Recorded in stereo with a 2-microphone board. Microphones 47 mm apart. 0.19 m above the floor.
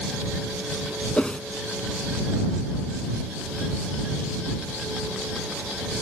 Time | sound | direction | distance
1.2 | a whoosh | 20° left (ahead or behind) | ?